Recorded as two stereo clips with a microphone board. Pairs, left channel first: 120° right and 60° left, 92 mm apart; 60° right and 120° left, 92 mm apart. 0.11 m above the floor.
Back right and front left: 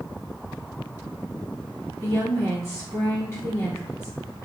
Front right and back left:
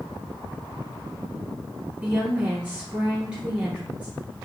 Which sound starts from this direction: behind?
A woman speaking, at 2.0 s.